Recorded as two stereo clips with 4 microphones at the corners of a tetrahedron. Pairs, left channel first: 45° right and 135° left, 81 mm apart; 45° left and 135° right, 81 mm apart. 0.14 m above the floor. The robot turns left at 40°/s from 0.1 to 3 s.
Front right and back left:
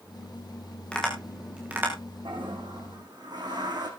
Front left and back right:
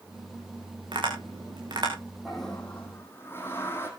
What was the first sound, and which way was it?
Tapping, 125° right.